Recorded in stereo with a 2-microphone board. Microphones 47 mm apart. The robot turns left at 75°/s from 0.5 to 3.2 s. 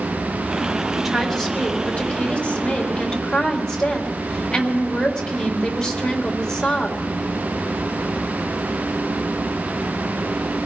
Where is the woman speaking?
165° right, 1.6 m; by 7.0 s 25° left, 1.6 m.